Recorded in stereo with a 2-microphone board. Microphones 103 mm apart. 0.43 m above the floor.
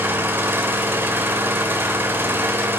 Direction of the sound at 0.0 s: 20° right (ahead or behind).